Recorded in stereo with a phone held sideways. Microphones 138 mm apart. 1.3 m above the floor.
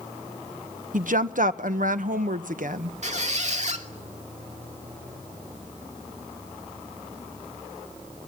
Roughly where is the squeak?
Right.